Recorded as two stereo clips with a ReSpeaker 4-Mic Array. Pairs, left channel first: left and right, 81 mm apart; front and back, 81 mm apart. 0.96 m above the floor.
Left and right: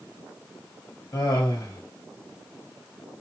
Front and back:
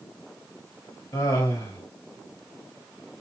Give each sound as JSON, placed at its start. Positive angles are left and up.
{"t": 1.1, "sound": "laughter", "azimuth_deg": 45, "distance_m": 1.8}